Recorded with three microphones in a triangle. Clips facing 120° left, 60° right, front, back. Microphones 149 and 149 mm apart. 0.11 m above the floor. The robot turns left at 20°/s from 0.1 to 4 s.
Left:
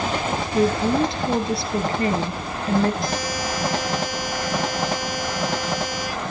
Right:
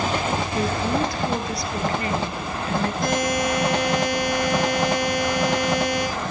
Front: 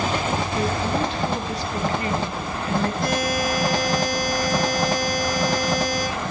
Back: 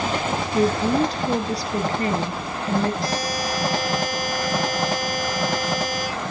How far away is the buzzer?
About 6 m.